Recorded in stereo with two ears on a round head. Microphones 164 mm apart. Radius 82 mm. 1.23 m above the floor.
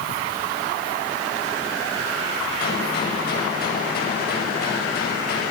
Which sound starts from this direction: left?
A gunshot, at 2.6 s.